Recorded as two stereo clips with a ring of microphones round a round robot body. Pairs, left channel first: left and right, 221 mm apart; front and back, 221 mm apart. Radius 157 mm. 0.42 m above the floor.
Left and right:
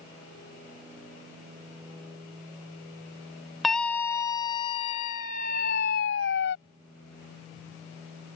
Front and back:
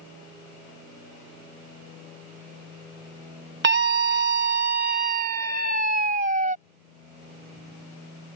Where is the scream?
Straight behind; by 6.5 s 130° left.